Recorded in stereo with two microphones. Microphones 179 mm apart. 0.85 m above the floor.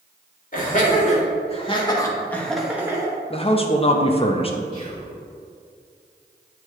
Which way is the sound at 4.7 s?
30° left (ahead or behind).